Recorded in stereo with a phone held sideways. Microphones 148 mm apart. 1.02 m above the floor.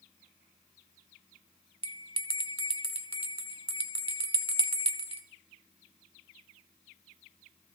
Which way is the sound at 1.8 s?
40° right (ahead or behind).